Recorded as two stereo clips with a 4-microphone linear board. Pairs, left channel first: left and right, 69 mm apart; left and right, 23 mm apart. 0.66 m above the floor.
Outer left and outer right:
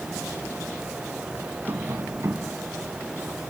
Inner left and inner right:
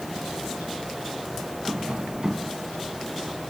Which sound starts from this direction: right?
Tapping, at 1.7 s.